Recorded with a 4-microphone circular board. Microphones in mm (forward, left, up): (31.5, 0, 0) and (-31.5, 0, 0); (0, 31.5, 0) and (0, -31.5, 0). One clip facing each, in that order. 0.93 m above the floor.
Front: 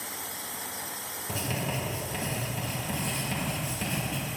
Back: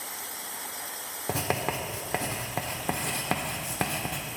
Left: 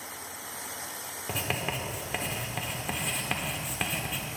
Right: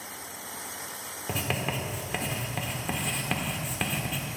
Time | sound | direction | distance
1.3 | writing | straight behind | 1.2 m